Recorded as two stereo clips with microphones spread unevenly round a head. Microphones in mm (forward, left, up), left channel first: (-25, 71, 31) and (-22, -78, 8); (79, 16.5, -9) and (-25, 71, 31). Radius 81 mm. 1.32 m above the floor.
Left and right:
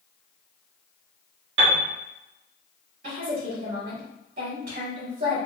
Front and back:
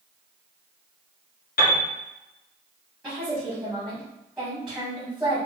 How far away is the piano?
About 1.1 m.